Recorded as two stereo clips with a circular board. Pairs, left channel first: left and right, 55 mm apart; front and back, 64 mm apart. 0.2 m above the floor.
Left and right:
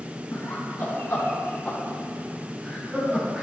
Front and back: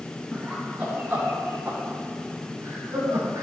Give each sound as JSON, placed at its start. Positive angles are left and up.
{"t": 0.3, "sound": "laughter", "azimuth_deg": 105, "distance_m": 2.5}